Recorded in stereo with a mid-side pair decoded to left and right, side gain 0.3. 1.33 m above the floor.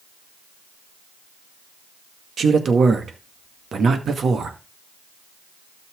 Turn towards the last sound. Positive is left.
turn(degrees=-65)